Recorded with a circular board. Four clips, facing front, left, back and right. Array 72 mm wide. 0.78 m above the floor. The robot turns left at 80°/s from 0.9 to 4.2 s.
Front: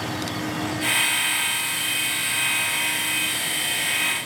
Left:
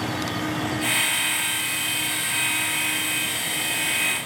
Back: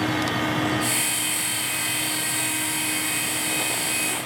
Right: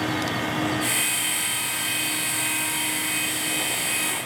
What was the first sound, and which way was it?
Only background noise.